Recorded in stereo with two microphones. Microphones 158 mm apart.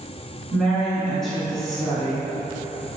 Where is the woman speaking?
5° left (ahead or behind), 1.5 m.